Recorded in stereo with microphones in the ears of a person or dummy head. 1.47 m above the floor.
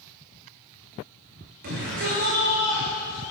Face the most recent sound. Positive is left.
turn(degrees=-70)  # may be behind; listen again after turning